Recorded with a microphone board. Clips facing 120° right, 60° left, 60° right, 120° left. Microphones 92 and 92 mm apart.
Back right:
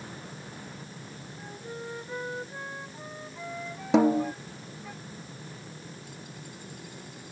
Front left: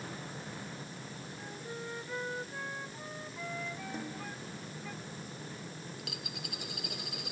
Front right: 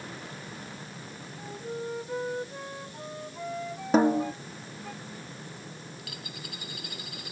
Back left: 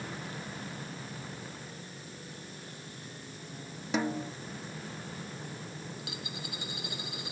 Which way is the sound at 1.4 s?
45° right.